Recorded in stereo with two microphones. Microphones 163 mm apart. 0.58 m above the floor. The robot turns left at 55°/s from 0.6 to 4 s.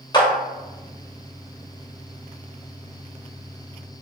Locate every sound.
0.1 s a clap: 25° left (ahead or behind), 1.2 m